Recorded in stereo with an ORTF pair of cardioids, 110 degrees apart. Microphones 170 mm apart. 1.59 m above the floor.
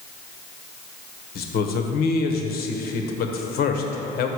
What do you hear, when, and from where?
1.4 s a man speaking: 65° left, 1.1 m